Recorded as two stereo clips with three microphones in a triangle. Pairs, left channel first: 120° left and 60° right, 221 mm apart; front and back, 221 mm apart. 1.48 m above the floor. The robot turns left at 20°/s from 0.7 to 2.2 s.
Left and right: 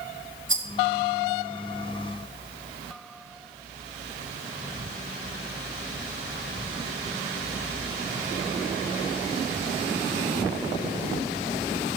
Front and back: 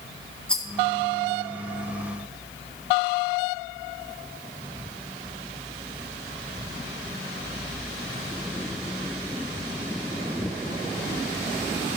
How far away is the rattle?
About 1.5 m.